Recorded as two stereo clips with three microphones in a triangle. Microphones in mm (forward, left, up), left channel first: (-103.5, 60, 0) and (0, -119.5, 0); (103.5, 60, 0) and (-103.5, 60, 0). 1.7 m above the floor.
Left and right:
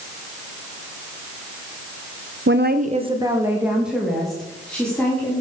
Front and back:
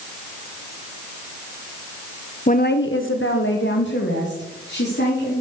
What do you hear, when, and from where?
2.5 s a woman speaking: 50° right, 0.9 m; by 5.4 s 35° left, 4.5 m